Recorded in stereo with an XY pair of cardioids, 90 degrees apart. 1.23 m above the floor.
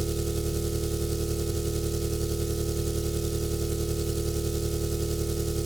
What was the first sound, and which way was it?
An engine running, 15° right.